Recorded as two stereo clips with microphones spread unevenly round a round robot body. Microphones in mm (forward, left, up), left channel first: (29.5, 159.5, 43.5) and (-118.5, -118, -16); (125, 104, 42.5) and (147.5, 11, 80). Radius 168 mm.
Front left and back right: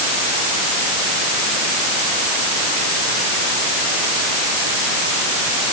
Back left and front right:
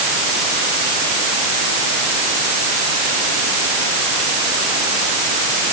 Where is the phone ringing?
I don't hear a phone ringing.